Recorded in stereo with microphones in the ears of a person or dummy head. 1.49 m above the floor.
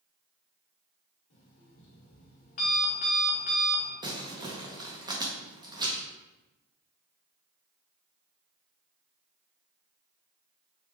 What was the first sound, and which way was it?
An alarm clock, 45° left (ahead or behind).